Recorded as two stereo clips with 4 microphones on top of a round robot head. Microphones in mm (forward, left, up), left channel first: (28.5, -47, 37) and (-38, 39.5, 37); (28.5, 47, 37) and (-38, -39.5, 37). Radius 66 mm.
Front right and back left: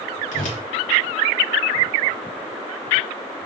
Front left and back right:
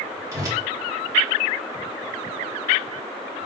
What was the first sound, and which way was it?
A whoosh, 65° right.